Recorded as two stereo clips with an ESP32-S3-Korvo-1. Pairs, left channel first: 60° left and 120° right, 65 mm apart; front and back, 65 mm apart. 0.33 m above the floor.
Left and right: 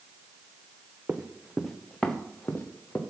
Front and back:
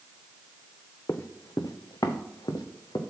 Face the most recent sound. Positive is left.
turn(degrees=0)